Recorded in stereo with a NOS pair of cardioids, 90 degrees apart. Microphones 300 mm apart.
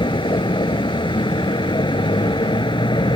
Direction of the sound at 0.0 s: 15° left.